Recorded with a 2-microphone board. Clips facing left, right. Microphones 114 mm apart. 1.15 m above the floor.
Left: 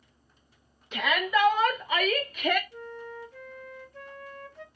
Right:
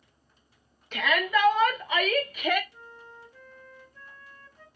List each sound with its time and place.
0.9 s a shout: 5° left (ahead or behind), 1.9 m; by 2.6 s 5° right (ahead or behind), 0.8 m
2.7 s a flute: 70° left (ahead or behind), 0.5 m